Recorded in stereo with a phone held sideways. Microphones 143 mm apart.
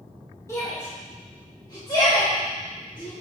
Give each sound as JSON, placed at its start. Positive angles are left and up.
{"t": 0.5, "sound": "a shout", "side_deg": 20, "distance_m": 2.5}